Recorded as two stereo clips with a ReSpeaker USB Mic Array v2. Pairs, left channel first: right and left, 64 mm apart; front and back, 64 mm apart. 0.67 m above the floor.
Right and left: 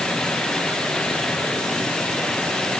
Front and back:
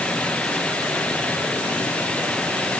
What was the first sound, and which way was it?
Only background noise.